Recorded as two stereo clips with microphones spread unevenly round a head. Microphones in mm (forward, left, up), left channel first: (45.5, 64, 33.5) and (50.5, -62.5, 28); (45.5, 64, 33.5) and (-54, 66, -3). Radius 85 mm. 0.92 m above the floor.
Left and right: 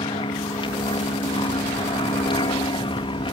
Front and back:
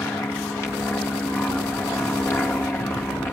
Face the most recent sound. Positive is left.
turn(degrees=75)